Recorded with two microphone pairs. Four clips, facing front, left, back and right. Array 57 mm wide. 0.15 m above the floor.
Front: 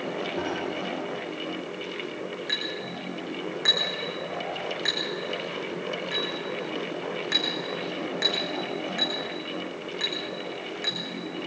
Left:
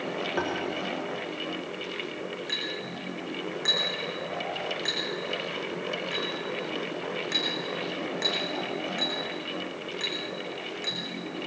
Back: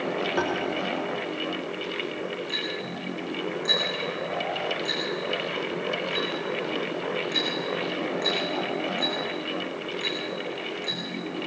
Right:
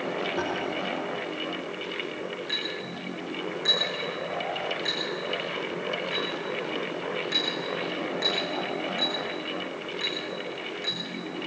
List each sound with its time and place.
0.4 s tapping: 145° left, 6.5 m
2.5 s a clink: 20° left, 8.5 m